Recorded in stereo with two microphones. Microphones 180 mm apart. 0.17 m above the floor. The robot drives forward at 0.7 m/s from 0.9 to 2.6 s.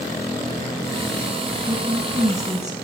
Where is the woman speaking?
20° right (ahead or behind), 1.5 m.